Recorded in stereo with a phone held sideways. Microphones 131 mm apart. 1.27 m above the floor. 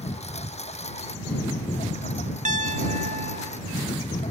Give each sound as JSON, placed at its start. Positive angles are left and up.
{"t": 0.0, "sound": "a lawn mower", "side_deg": 55}
{"t": 2.5, "sound": "a piano", "side_deg": -65}